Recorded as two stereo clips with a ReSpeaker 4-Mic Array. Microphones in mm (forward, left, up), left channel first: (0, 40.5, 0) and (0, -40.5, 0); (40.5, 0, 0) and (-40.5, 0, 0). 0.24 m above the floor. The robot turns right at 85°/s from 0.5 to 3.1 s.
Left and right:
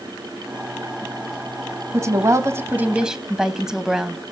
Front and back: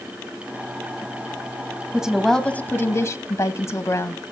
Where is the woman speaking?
110° right, 1.1 m; by 4.2 s 10° right, 1.1 m.